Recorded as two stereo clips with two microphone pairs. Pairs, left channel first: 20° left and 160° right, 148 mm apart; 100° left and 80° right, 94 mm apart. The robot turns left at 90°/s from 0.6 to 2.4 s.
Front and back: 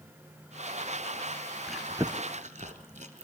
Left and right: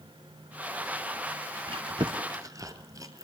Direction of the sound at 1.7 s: 65° right.